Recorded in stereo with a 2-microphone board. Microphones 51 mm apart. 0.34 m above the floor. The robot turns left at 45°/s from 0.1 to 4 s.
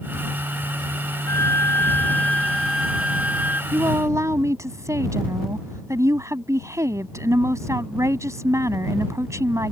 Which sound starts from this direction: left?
A flute, at 1.3 s.